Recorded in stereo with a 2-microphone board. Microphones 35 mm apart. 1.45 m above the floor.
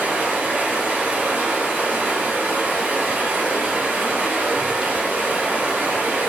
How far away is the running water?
About 1.3 m.